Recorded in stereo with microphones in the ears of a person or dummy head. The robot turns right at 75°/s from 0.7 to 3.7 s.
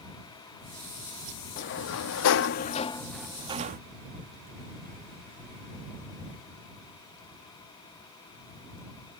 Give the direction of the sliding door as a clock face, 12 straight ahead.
10 o'clock.